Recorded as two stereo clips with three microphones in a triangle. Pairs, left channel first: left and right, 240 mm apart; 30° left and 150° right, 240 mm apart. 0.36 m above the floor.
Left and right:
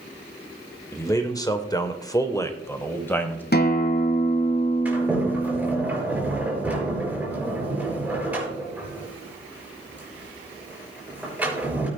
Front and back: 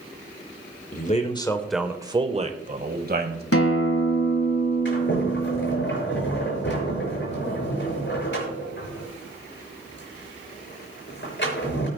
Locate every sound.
0.9 s a man speaking: 20° left, 1.0 m; by 3.4 s 170° left, 1.9 m
3.5 s a guitar: 45° left, 1.4 m
4.8 s a sliding door: 5° right, 5 m